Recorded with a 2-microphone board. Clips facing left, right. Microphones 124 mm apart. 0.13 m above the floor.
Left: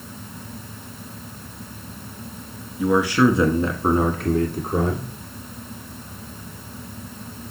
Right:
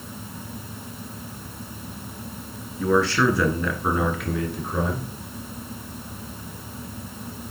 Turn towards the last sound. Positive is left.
turn(degrees=50)  # may be behind; listen again after turning